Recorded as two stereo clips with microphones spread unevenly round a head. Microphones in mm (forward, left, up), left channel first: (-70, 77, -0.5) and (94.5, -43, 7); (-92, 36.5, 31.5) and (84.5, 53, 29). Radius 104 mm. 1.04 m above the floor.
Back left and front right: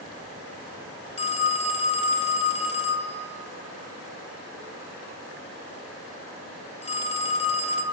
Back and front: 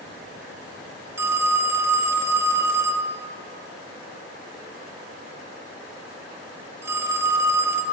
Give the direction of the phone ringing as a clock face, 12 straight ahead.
9 o'clock.